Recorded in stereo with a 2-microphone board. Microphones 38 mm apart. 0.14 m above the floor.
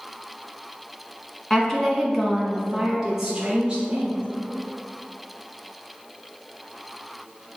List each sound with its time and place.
1.5 s a woman speaking: 15° left (ahead or behind), 1.2 m; by 4.2 s 25° right (ahead or behind), 1.4 m